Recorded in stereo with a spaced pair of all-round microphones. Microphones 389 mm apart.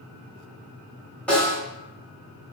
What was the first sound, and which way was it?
A snare drum, 5° left (ahead or behind).